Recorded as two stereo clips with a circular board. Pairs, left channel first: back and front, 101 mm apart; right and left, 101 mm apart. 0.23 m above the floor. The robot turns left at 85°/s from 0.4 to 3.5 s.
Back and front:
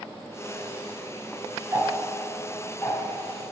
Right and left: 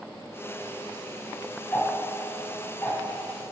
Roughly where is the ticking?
Ahead right.